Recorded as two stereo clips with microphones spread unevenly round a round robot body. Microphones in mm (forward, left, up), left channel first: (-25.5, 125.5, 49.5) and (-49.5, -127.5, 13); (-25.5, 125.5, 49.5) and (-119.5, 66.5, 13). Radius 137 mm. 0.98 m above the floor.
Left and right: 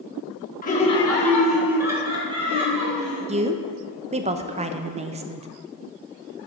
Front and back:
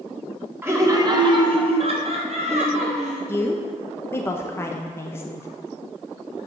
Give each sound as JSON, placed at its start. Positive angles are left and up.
{"t": 0.6, "sound": "laughter", "azimuth_deg": 145, "distance_m": 2.0}
{"t": 3.3, "sound": "a woman speaking", "azimuth_deg": -50, "distance_m": 0.7}